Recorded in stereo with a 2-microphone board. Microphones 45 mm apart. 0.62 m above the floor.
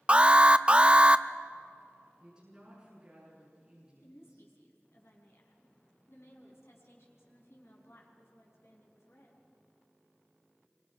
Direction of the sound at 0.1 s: 25° right (ahead or behind).